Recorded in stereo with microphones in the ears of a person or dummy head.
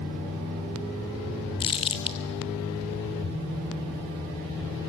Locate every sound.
1.6 s crumpling: 25° left (ahead or behind), 1.2 m